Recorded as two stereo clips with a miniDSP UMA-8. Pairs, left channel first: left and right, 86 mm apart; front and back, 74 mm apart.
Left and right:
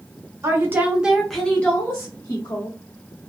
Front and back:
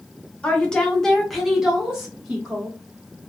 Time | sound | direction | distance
0.4 | a woman speaking | 65° right | 1.0 m